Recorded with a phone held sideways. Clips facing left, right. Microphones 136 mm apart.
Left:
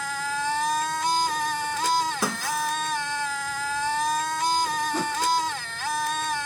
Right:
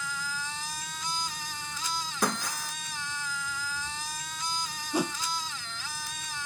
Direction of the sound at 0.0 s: 80° left.